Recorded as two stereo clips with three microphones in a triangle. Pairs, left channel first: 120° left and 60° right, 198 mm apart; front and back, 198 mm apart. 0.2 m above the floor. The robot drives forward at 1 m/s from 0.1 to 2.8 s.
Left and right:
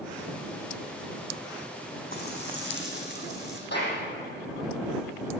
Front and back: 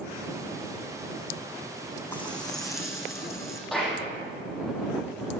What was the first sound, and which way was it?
Frying, 80° left.